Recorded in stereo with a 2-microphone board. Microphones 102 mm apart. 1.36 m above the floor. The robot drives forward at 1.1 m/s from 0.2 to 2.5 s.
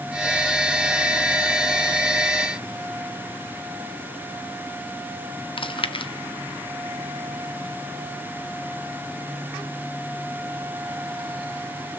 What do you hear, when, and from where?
5.6 s chewing: 55° left (ahead or behind), 0.8 m